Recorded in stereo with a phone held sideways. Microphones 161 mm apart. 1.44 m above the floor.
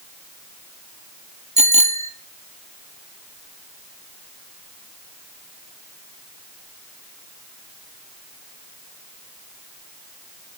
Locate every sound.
1.6 s a bicycle bell: 45° right (ahead or behind), 2 m